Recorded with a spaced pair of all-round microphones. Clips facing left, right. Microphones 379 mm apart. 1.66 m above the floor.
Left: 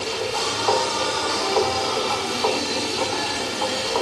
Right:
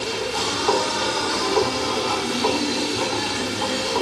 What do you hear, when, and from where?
0.0 s a machine running: 30° right (ahead or behind), 2.5 m